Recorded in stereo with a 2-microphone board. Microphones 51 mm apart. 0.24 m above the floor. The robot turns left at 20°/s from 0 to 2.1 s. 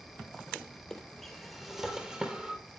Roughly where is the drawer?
Centre.